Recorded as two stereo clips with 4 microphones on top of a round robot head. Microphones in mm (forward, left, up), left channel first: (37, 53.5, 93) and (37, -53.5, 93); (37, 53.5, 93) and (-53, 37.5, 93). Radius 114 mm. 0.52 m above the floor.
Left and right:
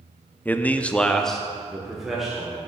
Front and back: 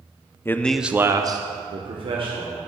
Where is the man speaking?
35° left, 0.8 m; by 2.6 s 175° right, 2 m.